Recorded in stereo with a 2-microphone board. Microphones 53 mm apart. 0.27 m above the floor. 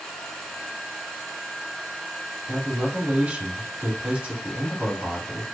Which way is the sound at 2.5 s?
25° right (ahead or behind).